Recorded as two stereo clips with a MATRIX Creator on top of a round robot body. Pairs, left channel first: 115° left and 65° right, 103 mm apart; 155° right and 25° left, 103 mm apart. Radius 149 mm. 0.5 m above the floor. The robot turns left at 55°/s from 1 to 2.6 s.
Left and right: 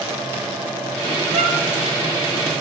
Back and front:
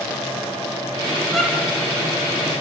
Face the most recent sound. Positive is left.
turn(degrees=-135)